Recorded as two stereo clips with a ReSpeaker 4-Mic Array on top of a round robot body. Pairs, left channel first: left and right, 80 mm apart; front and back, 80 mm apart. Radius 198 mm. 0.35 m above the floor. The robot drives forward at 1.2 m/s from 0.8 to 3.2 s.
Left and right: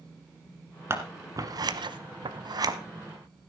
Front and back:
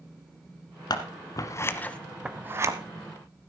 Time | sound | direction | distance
0.9 | scissors | 30° right | 1.7 m